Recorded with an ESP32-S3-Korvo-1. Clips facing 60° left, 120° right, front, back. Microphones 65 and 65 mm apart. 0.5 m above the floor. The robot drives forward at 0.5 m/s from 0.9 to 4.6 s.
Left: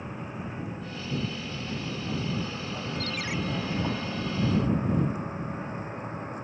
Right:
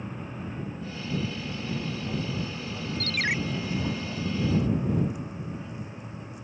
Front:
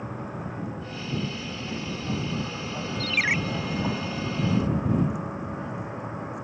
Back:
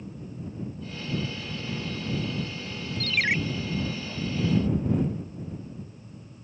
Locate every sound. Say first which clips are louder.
0.0 s a vehicle: even, front 5 dB; 15° right; by 6.4 s 10° left
3.0 s a ringtone: right 8 dB, even; 85° right